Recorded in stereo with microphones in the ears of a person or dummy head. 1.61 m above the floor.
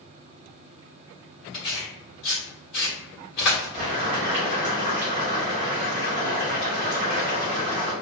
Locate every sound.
1.5 s tearing paper: 35° left (ahead or behind), 1.4 m
3.7 s boiling: 40° right (ahead or behind), 1.6 m